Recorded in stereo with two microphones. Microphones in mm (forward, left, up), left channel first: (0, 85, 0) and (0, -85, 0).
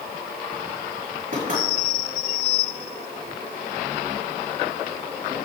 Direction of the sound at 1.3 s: 60° right (ahead or behind).